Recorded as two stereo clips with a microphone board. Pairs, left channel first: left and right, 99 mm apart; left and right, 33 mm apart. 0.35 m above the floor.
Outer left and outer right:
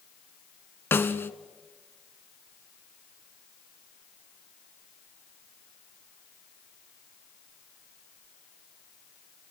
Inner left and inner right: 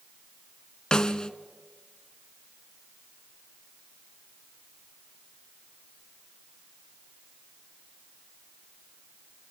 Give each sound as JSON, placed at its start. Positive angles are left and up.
{"t": 0.9, "sound": "a snare drum", "side_deg": 25, "distance_m": 0.7}